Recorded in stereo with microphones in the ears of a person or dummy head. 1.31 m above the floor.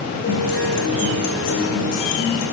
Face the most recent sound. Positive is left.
turn(degrees=40)  # may be behind; listen again after turning